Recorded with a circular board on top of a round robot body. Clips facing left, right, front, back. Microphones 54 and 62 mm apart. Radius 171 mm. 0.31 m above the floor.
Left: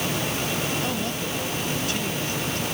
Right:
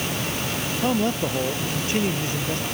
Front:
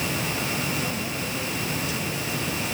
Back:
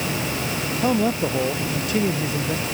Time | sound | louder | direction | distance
0.8 | a man speaking | right 5 dB, back 9 dB | 150° right | ?